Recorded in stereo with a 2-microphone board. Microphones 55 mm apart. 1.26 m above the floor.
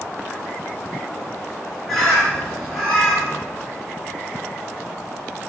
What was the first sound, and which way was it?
A bird, 5° left (ahead or behind).